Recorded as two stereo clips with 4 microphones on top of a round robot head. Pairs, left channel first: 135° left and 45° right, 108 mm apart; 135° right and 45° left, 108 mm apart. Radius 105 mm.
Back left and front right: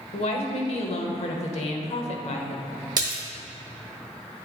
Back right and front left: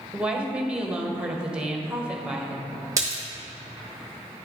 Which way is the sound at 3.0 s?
5° right.